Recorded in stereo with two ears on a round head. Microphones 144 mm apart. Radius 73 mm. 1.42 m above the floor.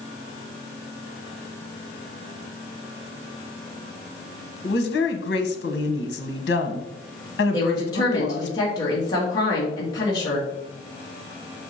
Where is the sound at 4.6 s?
70° left (ahead or behind), 1.5 m.